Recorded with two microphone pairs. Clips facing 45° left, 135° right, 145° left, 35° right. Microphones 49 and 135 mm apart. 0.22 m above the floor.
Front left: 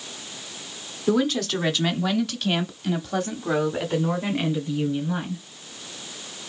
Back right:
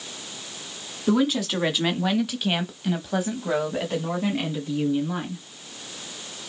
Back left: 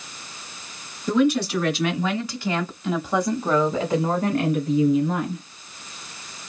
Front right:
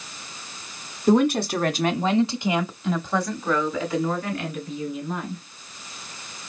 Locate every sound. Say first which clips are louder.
1.1 s a woman speaking: even, front right 1 dB; 50° right, 1.8 m; by 5.4 s 135° left, 2.5 m